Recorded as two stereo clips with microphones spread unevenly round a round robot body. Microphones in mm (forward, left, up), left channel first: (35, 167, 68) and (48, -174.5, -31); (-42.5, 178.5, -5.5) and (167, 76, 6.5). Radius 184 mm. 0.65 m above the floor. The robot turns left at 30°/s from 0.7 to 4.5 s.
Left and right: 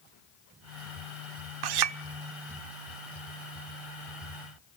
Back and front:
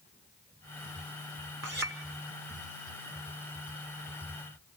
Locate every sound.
1.6 s a clink: 85° right, 0.9 m; by 2.0 s 95° right, 0.9 m